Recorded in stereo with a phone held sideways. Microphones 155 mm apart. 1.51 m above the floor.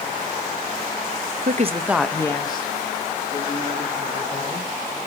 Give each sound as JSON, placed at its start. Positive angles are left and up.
{"t": 1.4, "sound": "a woman speaking", "side_deg": -65, "distance_m": 0.7}